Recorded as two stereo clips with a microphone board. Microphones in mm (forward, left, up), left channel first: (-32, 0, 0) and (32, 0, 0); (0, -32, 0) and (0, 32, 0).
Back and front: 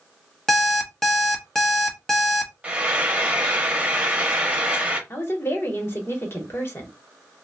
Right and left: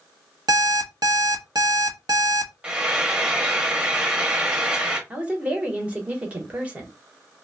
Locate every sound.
0.5 s an alarm clock: 100° left, 0.7 m
2.6 s frying: 40° left, 0.7 m
5.1 s a woman speaking: 150° left, 1.0 m